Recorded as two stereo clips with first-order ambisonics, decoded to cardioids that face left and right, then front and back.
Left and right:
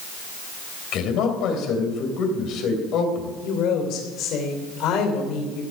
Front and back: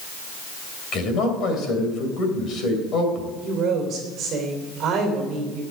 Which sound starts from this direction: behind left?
A woman speaking, at 3.4 s.